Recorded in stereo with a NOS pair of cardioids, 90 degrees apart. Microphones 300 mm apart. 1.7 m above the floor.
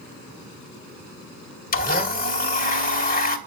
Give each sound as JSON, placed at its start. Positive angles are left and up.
{"t": 1.7, "sound": "a blender", "azimuth_deg": 30, "distance_m": 2.0}